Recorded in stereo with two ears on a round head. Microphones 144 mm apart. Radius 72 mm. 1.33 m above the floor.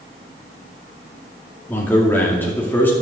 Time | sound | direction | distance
1.7 | a man speaking | 15° left (ahead or behind) | 2.5 m